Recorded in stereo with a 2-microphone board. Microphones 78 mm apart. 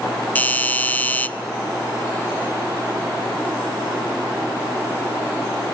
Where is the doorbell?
20° left (ahead or behind), 1.6 m.